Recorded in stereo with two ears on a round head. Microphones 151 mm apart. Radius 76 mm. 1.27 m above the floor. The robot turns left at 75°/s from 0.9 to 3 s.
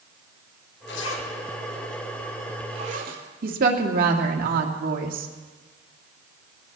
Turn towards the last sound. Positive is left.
turn(degrees=-50)  # may be behind; listen again after turning